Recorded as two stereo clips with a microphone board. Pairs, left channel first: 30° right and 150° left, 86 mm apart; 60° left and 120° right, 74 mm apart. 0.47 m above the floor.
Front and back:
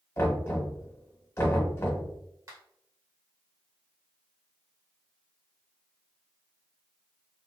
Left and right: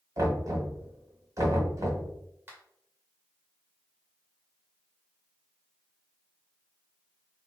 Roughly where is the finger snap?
Behind.